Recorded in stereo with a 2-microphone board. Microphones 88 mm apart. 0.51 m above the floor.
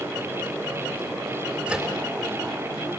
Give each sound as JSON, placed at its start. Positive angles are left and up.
{"t": 1.7, "sound": "a microwave", "side_deg": -15, "distance_m": 6.5}